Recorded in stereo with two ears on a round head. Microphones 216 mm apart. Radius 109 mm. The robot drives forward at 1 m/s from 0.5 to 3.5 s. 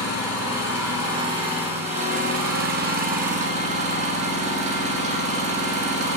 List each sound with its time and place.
0.0 s an engine running: 15° right (ahead or behind), 2.5 m; by 6.2 s 30° right (ahead or behind), 1.2 m